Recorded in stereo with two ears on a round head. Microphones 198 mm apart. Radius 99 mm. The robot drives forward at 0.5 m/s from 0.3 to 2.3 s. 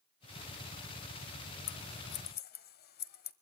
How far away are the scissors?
About 0.7 m.